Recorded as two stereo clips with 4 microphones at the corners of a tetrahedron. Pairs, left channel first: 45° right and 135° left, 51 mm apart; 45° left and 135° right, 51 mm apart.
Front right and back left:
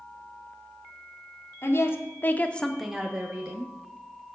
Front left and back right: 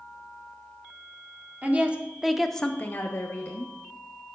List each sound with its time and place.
1.6 s a woman speaking: 75° right, 1.0 m; by 3.7 s 85° left, 1.1 m